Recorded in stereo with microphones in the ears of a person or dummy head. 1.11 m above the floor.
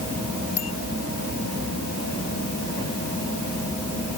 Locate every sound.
0.6 s a bicycle bell: 40° left (ahead or behind)